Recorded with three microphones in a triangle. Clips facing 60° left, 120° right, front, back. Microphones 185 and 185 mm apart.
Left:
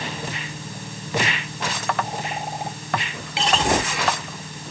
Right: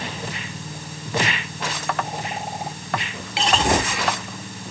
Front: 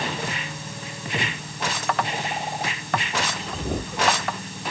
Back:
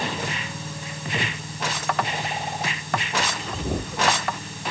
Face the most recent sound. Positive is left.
No sound to turn to.